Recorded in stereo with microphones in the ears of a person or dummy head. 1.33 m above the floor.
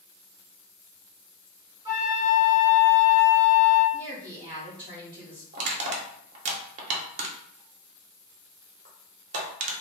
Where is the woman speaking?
25° right (ahead or behind), 0.8 m.